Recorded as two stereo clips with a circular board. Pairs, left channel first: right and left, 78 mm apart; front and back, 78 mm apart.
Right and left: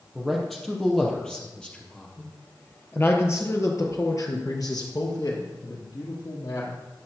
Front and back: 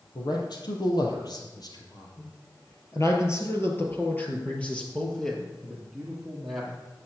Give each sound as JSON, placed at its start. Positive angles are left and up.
{"t": 0.1, "sound": "a man speaking", "azimuth_deg": 0, "distance_m": 3.0}